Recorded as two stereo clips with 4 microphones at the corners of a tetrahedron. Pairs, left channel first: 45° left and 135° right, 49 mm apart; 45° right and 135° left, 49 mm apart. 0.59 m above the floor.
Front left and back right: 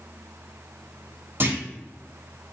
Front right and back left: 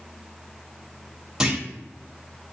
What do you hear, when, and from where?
1.4 s a clunk: 155° right, 1.7 m